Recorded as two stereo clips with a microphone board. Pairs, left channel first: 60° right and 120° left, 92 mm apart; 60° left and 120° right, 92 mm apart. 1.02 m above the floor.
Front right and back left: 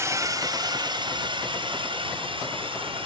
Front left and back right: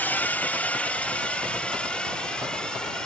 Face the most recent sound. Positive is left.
turn(degrees=140)